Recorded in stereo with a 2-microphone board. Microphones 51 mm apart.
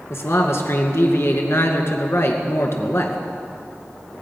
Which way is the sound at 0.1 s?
60° left (ahead or behind).